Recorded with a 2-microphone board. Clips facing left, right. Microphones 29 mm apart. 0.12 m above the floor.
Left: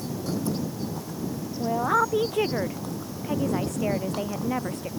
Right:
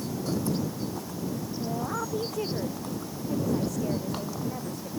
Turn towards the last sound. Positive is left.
turn(degrees=60)  # may be behind; listen again after turning